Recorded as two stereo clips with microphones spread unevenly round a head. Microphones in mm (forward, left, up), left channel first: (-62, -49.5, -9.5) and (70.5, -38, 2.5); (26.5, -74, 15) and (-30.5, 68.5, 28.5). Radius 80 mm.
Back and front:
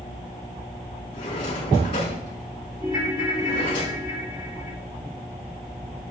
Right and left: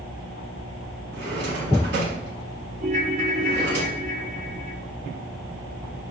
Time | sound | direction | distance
1.1 | a drawer | 120° left | 5 m
2.8 | a ringtone | 80° left | 2.0 m